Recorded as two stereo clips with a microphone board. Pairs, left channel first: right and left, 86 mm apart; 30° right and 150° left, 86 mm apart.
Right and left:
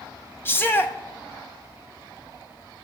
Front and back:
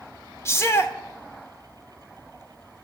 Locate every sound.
0.5 s a shout: 50° right, 0.9 m